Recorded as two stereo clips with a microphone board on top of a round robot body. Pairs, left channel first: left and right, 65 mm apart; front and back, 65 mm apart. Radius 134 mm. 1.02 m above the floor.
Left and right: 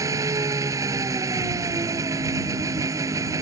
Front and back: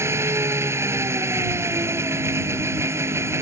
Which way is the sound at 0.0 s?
130° right.